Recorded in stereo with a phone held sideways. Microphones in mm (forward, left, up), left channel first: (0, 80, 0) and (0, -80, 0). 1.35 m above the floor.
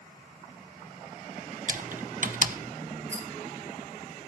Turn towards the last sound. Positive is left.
turn(degrees=-15)  # may be behind; listen again after turning